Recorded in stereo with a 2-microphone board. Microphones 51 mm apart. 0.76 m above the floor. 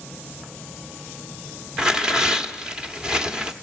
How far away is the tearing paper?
About 1.3 m.